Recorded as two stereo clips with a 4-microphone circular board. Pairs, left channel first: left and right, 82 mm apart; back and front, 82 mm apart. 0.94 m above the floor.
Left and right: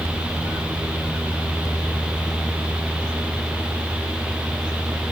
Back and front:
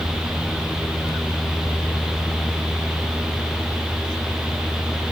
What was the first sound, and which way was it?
Only background noise.